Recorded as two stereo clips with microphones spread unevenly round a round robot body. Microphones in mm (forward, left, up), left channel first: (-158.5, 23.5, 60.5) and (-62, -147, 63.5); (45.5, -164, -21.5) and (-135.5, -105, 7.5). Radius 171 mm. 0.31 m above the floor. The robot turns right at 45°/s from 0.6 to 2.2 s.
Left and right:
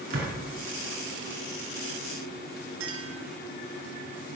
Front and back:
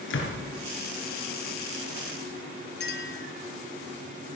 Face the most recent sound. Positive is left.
turn(degrees=-45)